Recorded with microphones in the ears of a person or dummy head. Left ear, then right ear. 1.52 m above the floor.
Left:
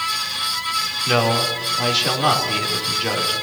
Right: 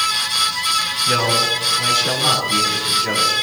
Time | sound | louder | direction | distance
1.1 | a man speaking | right 1 dB | 60° left (ahead or behind) | 4 m